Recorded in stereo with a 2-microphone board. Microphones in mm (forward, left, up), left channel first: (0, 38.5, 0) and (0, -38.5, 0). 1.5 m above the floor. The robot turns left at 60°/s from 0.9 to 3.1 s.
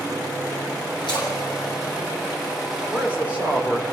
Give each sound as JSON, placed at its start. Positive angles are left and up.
{"t": 1.1, "sound": "a splash", "side_deg": 75, "distance_m": 9.5}
{"t": 2.9, "sound": "a man speaking", "side_deg": -5, "distance_m": 4.0}